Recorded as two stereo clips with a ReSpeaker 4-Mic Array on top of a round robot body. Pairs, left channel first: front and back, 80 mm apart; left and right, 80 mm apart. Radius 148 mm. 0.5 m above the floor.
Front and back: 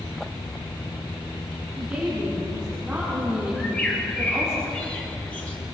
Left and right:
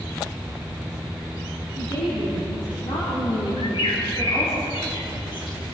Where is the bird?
75° left, 5 m.